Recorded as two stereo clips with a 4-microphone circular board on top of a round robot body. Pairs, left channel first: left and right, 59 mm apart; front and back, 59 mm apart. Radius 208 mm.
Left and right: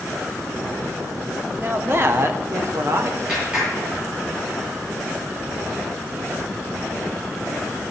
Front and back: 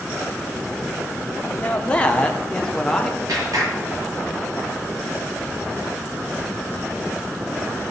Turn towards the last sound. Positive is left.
turn(degrees=-165)